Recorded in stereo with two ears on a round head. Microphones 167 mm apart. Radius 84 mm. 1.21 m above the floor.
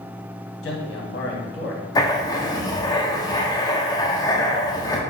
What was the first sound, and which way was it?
A man speaking, 65° left (ahead or behind).